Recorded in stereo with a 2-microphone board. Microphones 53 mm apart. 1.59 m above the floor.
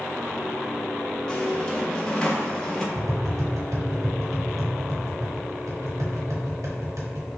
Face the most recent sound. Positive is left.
turn(degrees=-75)  # may be behind; listen again after turning